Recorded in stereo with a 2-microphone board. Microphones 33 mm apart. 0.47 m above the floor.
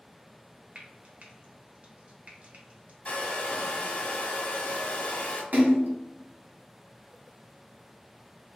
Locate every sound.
0.8 s frying: 45° right (ahead or behind), 0.8 m
3.0 s a hair dryer: 40° left (ahead or behind), 0.7 m
5.5 s a splash: 85° right, 1.1 m